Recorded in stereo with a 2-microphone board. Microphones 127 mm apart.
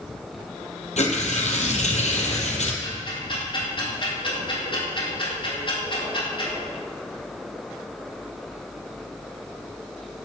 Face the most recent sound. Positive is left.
turn(degrees=40)  # may be behind; listen again after turning